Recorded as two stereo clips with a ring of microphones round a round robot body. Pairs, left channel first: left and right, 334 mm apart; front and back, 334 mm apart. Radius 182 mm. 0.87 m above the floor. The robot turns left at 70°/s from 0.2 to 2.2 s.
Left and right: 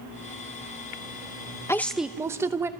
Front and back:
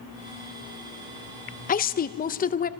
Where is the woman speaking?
20° left, 0.6 m; by 2.7 s 15° right, 0.6 m.